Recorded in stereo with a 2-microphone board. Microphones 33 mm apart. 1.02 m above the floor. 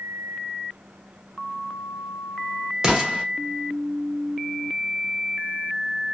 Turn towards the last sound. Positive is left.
turn(degrees=-20)  # may be behind; listen again after turning